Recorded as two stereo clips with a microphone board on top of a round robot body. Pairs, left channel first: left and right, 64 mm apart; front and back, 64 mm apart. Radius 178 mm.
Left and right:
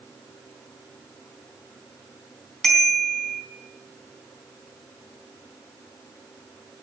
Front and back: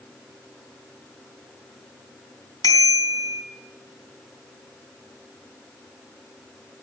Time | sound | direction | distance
2.6 | a bicycle bell | 5° left | 4 m